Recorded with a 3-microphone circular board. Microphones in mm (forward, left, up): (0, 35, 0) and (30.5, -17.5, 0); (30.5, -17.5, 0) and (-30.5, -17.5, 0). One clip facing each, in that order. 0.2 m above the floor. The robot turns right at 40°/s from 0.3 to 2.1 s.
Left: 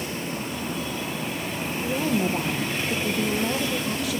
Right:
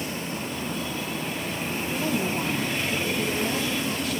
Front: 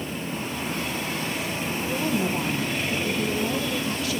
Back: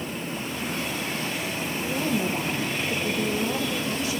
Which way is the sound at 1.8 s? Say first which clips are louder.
Left 3 dB, front 1 dB; 105° left.